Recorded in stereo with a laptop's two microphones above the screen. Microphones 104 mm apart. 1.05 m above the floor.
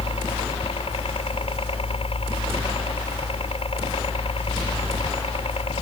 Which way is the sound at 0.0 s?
65° left (ahead or behind).